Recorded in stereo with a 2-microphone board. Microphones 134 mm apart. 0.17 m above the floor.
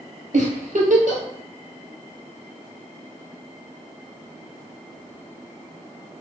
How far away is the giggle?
About 0.9 m.